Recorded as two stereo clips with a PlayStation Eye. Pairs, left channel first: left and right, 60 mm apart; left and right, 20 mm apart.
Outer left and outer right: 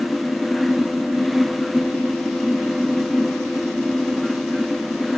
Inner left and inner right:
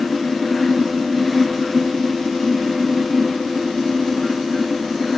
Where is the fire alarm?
No fire alarm in this recording.